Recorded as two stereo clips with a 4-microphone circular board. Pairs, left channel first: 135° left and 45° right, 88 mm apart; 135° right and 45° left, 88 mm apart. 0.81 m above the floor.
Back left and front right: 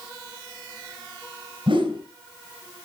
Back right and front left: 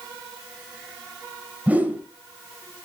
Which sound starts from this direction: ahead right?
A whoosh, at 1.7 s.